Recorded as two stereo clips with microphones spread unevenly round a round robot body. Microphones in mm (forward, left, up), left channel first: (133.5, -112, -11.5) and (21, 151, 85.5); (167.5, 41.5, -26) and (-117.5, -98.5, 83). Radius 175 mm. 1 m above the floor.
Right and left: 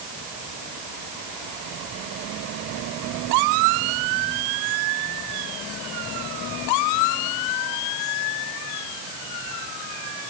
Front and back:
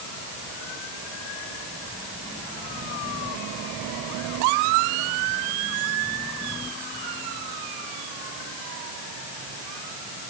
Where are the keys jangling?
I don't hear keys jangling.